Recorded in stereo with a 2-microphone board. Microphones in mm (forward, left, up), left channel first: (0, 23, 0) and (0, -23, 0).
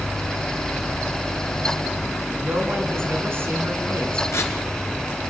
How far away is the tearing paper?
About 3 m.